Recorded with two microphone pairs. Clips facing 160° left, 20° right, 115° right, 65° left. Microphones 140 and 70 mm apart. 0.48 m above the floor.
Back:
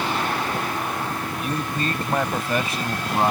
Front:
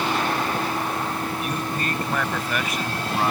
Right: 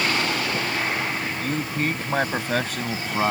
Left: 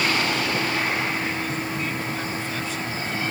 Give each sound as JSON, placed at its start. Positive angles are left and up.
{"t": 1.4, "sound": "a man speaking", "azimuth_deg": -140}